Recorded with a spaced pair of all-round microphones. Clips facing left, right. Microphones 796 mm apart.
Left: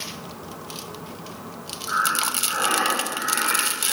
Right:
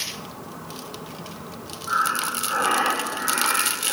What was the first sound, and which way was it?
Breathing, 85° right.